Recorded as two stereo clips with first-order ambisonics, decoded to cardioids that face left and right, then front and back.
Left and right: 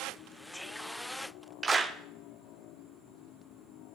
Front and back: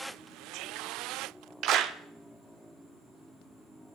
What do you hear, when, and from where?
1.6 s a clap: 155° right, 0.6 m